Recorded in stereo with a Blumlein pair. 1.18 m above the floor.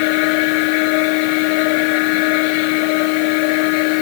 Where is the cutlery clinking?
No cutlery clinking in this recording.